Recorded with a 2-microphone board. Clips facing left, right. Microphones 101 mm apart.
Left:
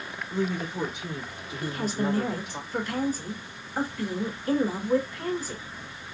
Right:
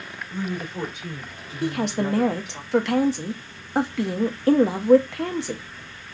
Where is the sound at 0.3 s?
Centre (ahead or behind), 2 m; by 2.6 s 45° left (ahead or behind), 1.4 m.